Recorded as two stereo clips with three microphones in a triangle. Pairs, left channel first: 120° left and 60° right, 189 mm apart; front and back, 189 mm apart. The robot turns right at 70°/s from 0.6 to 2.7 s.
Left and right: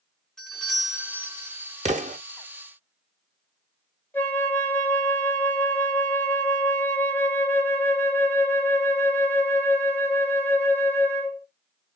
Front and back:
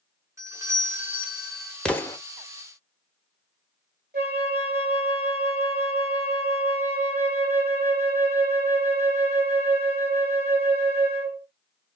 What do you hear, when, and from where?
0.4 s a doorbell: 155° right, 1.1 m; by 1.8 s 75° right, 1.1 m
1.9 s an explosion: 80° right, 0.7 m; by 2.2 s 60° right, 0.7 m
4.1 s a flute: 160° right, 1.6 m